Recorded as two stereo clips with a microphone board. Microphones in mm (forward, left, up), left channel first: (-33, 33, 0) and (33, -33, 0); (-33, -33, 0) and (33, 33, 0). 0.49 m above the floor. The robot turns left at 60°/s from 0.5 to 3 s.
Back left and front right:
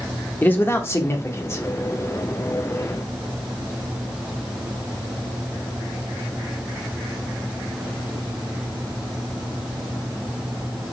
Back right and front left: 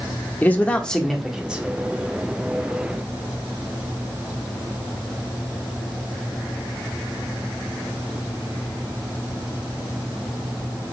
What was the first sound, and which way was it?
A man speaking, 175° left.